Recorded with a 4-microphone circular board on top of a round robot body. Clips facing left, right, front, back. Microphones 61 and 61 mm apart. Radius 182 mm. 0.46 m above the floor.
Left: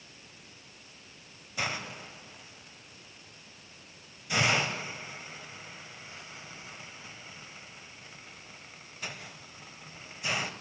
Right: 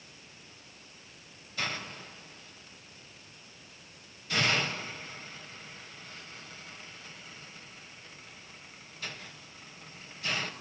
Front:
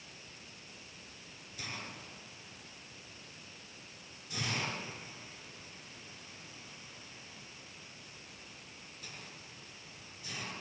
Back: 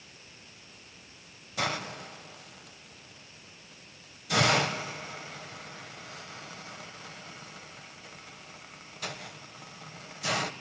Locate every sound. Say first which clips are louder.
1.6 s a hiss: left 2 dB, back 13 dB; 165° left, 1.0 m